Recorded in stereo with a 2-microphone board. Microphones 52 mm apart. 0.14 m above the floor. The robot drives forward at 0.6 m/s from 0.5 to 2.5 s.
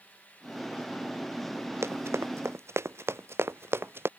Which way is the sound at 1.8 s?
60° right (ahead or behind).